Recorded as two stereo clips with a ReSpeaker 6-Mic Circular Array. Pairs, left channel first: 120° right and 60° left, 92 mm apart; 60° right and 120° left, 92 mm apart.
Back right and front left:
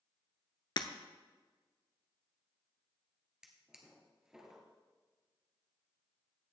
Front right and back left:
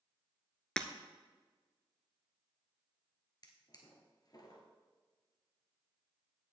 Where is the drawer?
20° right, 1.7 m.